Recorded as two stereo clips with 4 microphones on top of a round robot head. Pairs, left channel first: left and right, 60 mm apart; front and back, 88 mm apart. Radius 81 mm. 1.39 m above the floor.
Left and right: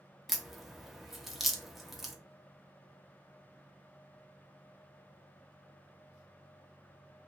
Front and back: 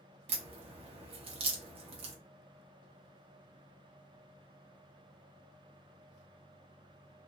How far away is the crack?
About 0.6 m.